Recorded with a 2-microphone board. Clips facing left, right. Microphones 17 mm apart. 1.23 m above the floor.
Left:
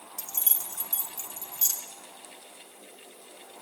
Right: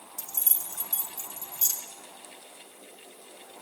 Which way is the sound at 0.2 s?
45° left (ahead or behind).